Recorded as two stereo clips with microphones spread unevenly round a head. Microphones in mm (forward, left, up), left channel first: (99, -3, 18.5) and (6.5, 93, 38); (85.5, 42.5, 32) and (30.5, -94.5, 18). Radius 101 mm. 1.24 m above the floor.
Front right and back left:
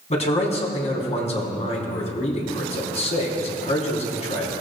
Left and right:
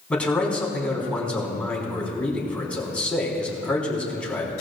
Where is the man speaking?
15° right, 3.5 m.